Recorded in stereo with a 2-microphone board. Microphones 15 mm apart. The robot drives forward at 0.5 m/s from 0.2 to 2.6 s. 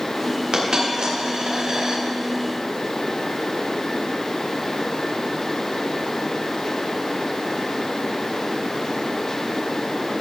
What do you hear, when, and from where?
0.5 s a dropped coin: 55° right (ahead or behind), 4.5 m; by 2.0 s 65° right (ahead or behind), 4.5 m